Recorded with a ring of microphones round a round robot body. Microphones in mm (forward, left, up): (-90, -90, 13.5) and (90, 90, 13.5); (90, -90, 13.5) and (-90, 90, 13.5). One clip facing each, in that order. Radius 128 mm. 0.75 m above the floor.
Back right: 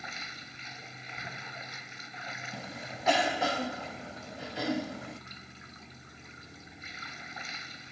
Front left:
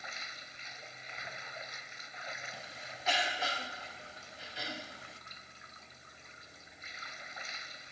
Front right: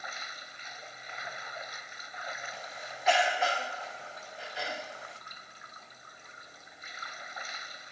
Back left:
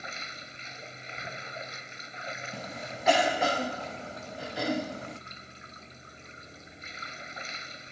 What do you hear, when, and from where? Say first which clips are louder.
0.0 s running water: back right 6 dB, back left 4 dB; 160° right
2.5 s a cough: back right 9 dB, back left 6 dB; 175° right